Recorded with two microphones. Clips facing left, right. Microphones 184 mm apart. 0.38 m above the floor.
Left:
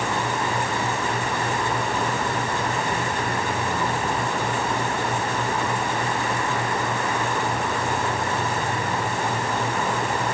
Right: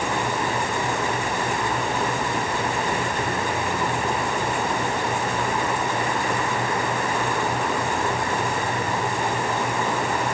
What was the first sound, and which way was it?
Only background noise.